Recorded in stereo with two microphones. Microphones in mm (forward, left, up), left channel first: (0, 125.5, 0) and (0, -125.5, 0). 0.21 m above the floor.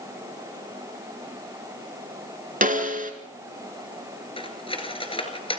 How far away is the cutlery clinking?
About 2.5 m.